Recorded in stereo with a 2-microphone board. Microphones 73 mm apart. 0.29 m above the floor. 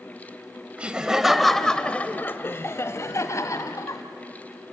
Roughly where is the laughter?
Centre.